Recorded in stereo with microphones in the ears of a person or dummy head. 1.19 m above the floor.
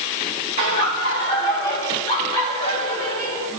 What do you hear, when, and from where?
0.6 s laughter: 55° left (ahead or behind), 1.8 m; by 3.5 s 30° left (ahead or behind), 3 m